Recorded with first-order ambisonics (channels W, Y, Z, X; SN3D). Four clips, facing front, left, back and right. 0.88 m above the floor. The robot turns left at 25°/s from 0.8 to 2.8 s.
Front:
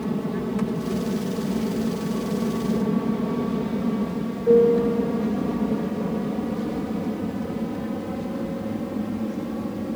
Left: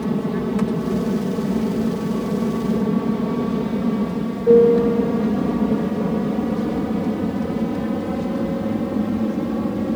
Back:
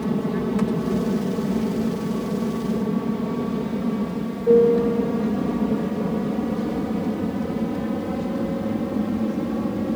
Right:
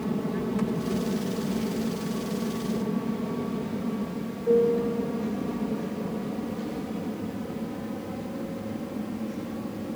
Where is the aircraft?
115° left.